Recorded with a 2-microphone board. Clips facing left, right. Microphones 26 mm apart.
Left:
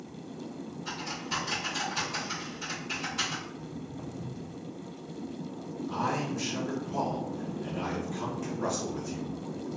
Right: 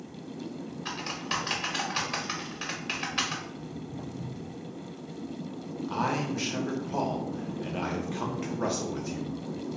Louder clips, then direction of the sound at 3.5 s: Right 1 dB; 25° right (ahead or behind).